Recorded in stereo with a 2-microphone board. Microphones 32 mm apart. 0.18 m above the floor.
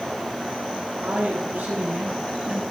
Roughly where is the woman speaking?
Right.